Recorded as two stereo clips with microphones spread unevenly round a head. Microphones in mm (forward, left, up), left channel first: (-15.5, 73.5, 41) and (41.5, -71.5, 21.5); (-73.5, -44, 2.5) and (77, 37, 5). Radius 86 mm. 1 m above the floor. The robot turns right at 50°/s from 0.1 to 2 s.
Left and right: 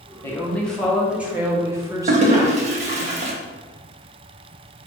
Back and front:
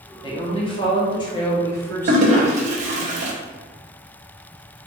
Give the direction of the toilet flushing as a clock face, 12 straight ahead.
1 o'clock.